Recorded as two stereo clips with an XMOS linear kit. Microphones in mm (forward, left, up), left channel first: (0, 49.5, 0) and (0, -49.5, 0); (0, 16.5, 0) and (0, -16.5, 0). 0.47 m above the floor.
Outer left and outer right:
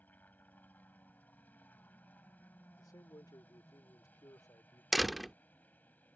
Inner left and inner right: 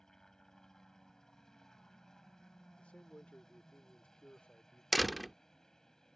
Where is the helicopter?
15° left (ahead or behind).